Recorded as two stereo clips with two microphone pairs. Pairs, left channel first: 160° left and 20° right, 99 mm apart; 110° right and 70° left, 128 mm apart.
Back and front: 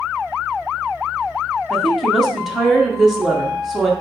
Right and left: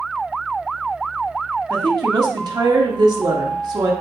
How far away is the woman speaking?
About 0.7 m.